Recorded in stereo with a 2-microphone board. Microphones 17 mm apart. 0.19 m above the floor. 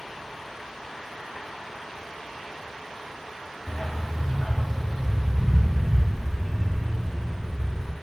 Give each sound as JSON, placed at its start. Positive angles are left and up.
{"t": 3.7, "sound": "a dog barking", "side_deg": 20, "distance_m": 1.2}